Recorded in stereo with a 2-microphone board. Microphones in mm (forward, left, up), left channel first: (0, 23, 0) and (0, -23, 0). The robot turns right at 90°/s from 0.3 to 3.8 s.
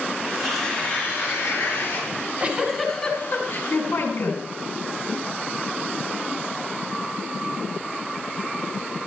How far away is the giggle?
About 3.5 m.